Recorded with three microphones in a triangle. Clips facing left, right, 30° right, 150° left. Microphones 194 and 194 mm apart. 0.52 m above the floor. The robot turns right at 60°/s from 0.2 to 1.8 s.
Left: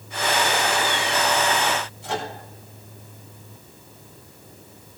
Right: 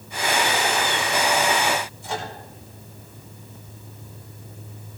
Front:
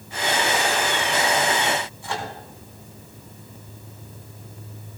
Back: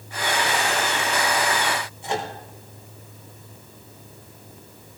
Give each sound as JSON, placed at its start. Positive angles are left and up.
{"t": 2.0, "sound": "a microwave", "azimuth_deg": 85, "distance_m": 4.0}